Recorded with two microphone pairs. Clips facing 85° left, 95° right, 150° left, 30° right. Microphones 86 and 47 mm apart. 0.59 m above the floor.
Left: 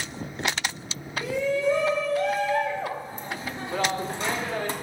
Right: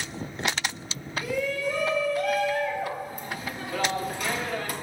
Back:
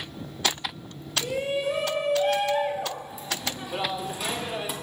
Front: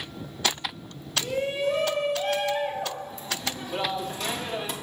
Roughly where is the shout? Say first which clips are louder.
Left 4 dB, even; left.